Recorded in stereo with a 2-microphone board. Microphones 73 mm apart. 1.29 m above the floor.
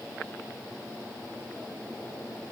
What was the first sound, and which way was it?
Only background noise.